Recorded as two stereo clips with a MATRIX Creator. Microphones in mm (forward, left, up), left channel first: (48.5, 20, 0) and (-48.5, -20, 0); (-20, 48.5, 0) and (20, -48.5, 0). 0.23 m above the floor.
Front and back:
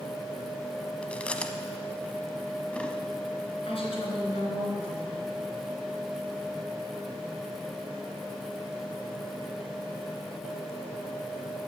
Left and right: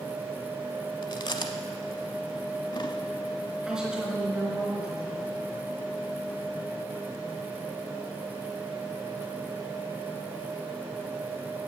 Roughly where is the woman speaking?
Ahead.